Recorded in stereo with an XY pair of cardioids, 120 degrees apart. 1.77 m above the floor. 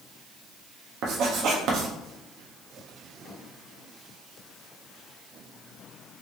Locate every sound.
1.0 s writing: 70° right, 1.0 m